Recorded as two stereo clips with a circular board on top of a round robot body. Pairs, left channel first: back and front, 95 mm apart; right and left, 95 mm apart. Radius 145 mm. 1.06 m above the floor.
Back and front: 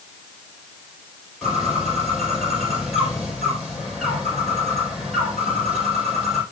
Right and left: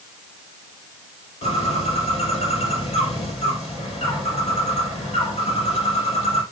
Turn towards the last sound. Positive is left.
turn(degrees=-90)